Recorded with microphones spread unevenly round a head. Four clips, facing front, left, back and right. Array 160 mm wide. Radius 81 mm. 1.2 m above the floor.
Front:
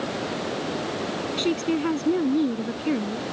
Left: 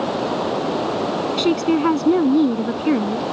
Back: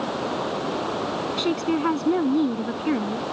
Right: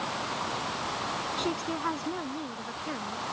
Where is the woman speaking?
95° left.